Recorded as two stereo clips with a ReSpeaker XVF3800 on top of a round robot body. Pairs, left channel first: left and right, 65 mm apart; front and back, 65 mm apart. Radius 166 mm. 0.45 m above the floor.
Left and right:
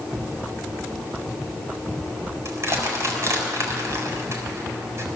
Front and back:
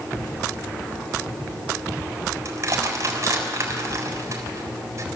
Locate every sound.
2.5 s crushing: 135° right, 4 m